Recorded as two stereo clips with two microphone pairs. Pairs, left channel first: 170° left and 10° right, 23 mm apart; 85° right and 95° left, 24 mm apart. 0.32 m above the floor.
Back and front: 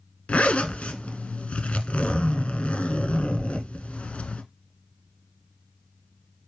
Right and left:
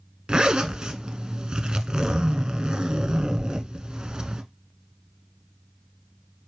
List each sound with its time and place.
0.3 s a zipper: 150° left, 0.7 m